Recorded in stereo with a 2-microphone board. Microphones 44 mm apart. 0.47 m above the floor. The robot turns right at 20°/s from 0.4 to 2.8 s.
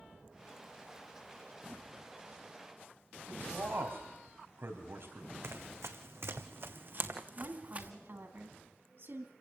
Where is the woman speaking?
60° right (ahead or behind), 3.5 m.